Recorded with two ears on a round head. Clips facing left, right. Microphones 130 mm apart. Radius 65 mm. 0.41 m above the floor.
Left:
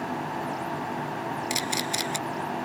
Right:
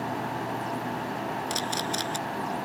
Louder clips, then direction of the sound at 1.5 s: Even; 10° left (ahead or behind).